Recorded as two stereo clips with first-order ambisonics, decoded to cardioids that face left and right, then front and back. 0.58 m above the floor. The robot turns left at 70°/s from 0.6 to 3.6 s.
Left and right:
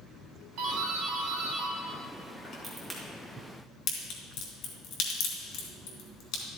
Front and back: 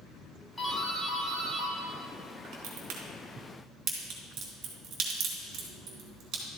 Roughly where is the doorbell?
Right.